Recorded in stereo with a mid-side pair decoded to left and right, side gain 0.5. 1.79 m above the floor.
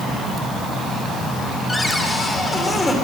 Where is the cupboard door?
15° left, 3.5 m.